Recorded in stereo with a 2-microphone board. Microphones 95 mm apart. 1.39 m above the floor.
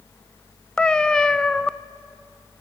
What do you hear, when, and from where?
0.8 s a cat meowing: 10° left (ahead or behind), 0.6 m